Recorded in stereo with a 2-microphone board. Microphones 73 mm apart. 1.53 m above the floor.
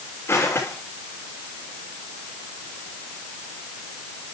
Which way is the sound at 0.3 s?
40° left (ahead or behind).